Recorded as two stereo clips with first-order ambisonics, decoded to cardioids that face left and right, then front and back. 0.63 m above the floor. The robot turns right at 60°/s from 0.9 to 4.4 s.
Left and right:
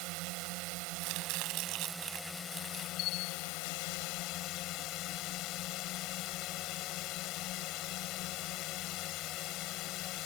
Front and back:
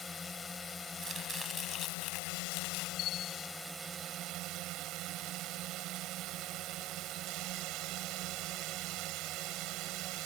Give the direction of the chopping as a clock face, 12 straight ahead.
4 o'clock.